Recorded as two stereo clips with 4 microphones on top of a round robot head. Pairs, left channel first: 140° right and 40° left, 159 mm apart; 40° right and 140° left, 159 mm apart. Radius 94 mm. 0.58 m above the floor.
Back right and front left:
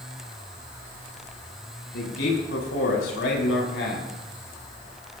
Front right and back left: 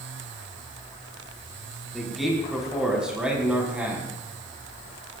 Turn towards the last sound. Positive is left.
turn(degrees=-140)